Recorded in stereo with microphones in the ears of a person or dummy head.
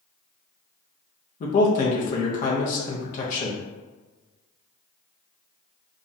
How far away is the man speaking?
About 0.6 m.